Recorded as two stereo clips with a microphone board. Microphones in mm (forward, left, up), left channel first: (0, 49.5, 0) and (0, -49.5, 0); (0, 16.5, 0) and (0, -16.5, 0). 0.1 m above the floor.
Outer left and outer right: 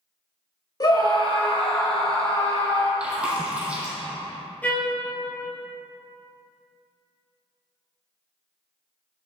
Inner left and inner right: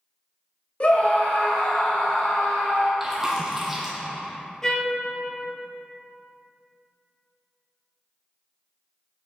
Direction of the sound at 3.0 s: 10° right (ahead or behind).